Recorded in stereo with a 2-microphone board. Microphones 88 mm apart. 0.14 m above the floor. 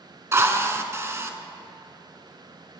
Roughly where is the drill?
Right.